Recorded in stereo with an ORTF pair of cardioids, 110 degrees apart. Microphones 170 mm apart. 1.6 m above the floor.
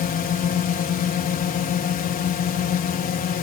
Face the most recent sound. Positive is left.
turn(degrees=55)